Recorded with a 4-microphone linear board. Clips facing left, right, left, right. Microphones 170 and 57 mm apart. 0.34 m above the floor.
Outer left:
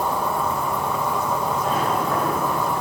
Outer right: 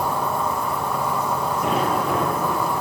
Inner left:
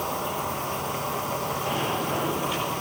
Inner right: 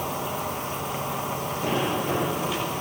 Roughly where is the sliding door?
Right.